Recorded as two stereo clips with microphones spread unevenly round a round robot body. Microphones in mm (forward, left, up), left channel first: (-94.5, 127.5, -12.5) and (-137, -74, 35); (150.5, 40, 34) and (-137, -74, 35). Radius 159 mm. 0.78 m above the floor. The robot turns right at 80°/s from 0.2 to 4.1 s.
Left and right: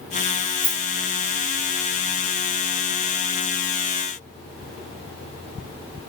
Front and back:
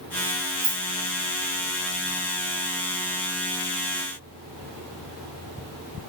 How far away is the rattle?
About 0.9 m.